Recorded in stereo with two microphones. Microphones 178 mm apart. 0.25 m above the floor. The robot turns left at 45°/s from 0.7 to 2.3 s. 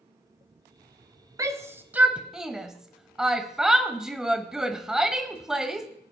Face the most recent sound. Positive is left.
turn(degrees=-5)  # may be behind; listen again after turning